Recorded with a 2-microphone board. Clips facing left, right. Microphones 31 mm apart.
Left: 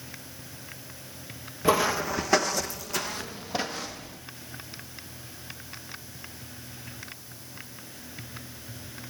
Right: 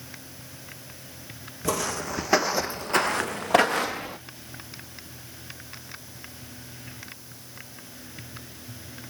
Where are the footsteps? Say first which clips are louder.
Left 5 dB; 25° left (ahead or behind), 1.3 m; by 4.2 s 80° right, 1.9 m.